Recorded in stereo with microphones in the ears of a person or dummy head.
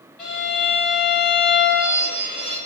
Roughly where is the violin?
Centre.